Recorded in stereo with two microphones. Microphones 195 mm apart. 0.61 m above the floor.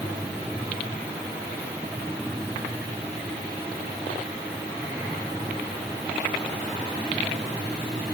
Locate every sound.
Only background noise.